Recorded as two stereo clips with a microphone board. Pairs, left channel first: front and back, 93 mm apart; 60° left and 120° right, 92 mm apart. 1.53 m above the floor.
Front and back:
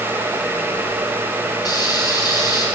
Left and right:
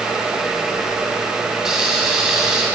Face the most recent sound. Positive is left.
turn(degrees=-35)